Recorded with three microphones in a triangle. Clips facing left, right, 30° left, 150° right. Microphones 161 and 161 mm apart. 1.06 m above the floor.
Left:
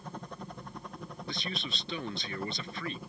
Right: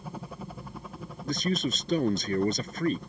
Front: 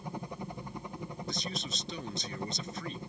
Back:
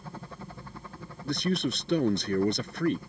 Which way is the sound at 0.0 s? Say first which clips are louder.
Right 3 dB, front 3 dB; 20° right.